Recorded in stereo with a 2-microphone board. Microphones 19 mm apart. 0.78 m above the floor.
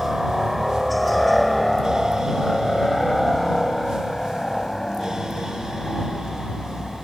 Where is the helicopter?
10° right (ahead or behind); by 7.1 s 25° left (ahead or behind).